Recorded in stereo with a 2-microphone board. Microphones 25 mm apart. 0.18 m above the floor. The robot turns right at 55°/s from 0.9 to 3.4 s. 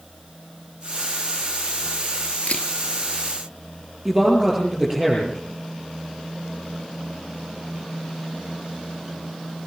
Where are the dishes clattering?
I don't hear dishes clattering.